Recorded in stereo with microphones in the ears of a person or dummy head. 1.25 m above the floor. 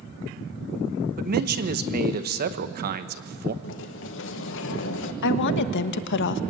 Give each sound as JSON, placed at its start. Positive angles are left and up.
{"t": 1.2, "sound": "a man speaking", "side_deg": -50, "distance_m": 1.2}
{"t": 3.6, "sound": "a sliding door", "side_deg": 65, "distance_m": 1.6}
{"t": 5.2, "sound": "a woman speaking", "side_deg": 65, "distance_m": 1.2}